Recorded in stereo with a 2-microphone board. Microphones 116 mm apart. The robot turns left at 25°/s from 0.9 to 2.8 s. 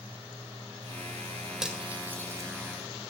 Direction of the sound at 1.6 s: 5° right (ahead or behind).